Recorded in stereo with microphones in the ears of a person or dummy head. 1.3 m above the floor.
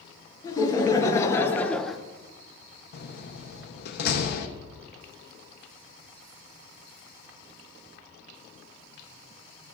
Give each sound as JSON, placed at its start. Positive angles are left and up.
{"t": 0.4, "sound": "laughter", "side_deg": 25, "distance_m": 1.9}
{"t": 2.9, "sound": "a door slam", "side_deg": 60, "distance_m": 0.9}